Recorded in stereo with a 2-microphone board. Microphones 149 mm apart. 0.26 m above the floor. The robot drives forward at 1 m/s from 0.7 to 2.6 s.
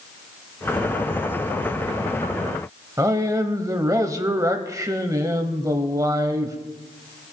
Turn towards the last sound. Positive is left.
turn(degrees=-20)  # may be behind; listen again after turning